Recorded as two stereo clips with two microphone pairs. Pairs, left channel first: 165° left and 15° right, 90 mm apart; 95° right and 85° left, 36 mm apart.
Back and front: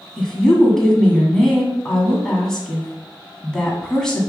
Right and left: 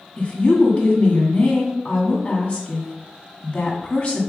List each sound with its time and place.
0.2 s a woman speaking: 115° right, 1.9 m